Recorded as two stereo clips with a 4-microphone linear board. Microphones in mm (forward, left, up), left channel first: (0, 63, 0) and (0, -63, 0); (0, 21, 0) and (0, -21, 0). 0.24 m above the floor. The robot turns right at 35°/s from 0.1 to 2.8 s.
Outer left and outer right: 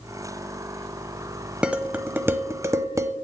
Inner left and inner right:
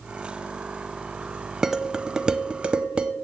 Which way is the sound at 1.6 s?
10° right (ahead or behind).